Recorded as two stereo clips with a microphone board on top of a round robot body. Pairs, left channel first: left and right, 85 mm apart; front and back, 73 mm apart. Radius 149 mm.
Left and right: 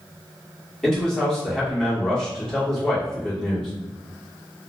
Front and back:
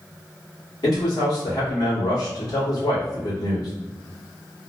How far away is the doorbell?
I don't hear a doorbell.